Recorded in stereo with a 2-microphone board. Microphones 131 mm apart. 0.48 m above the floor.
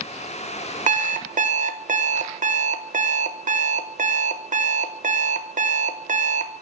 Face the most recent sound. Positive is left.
turn(degrees=-70)  # may be behind; listen again after turning